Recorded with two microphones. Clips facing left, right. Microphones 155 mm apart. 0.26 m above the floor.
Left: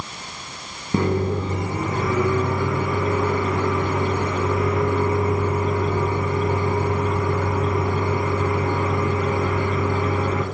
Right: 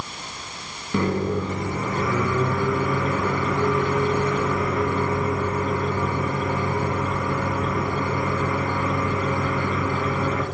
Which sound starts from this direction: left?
A microwave, at 0.9 s.